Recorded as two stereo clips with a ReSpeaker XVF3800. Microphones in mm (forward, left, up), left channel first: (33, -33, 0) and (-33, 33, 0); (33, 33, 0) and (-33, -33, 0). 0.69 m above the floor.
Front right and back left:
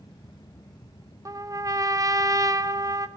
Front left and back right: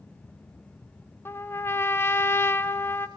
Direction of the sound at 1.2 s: 100° left.